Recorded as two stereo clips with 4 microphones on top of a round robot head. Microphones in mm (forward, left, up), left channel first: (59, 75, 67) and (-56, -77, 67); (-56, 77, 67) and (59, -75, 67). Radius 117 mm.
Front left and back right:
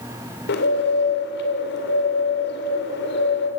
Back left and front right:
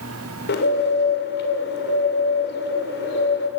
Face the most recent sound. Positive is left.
turn(degrees=90)